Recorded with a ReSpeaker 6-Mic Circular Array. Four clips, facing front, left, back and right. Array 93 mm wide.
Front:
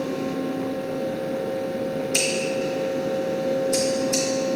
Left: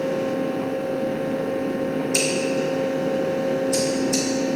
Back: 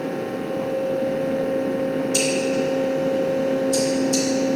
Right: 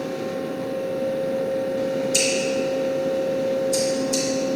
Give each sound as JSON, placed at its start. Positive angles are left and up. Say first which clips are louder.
{"t": 2.1, "sound": "scissors", "louder": "even, back 4 dB", "azimuth_deg": 20, "distance_m": 1.0}